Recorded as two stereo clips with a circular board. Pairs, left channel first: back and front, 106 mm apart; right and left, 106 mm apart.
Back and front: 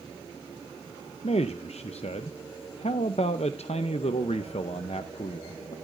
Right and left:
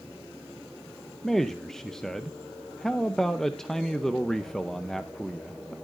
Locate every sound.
1.2 s a man speaking: 175° right, 0.7 m